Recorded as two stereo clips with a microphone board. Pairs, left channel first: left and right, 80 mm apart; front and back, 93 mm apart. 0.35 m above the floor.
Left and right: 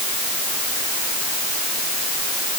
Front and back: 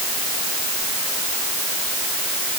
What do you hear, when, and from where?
Only background noise.